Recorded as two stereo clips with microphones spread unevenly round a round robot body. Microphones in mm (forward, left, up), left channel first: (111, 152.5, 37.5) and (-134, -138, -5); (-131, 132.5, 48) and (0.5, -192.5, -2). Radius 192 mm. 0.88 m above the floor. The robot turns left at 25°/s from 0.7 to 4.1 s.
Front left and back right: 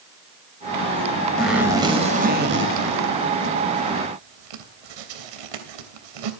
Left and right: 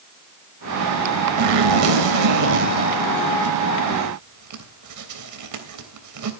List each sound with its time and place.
1.4 s a zipper: 40° right, 3 m; by 6.3 s 105° right, 3 m